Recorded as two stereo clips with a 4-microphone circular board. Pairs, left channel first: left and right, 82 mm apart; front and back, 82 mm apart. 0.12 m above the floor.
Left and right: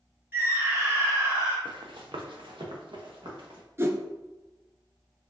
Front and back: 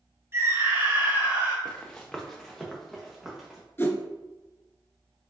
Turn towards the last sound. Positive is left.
turn(degrees=-50)